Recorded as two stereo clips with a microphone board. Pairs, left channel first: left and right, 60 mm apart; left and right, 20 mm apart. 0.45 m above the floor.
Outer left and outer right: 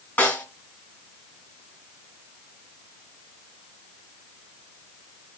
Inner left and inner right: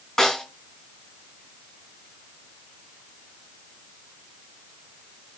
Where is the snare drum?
30° left (ahead or behind), 3 m.